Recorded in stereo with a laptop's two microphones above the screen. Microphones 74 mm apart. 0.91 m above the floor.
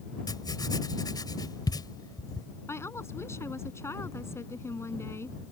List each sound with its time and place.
0.3 s writing: 70° left (ahead or behind)
2.7 s a woman speaking: 35° left (ahead or behind)